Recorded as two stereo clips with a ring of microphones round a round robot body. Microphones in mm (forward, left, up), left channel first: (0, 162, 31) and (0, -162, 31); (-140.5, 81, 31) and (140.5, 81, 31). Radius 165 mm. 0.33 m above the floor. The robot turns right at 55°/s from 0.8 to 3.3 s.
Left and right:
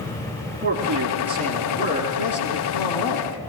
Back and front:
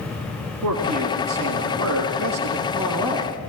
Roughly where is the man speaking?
Ahead right.